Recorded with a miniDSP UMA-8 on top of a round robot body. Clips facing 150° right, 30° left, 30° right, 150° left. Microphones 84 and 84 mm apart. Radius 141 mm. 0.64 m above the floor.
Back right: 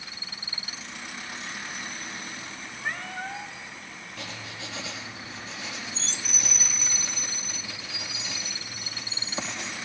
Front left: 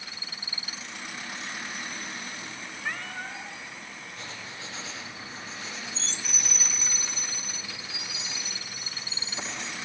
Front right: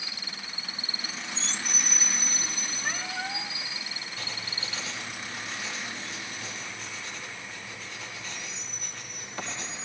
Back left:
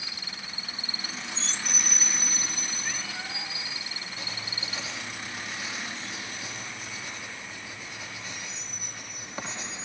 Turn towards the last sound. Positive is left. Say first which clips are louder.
# back right 4 dB, even
turn(degrees=-135)